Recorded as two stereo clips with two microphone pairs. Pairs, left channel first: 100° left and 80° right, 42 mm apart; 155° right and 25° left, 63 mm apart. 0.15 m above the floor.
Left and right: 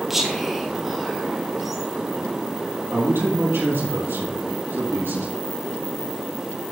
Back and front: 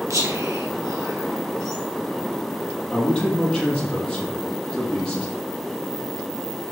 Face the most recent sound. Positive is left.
turn(degrees=-75)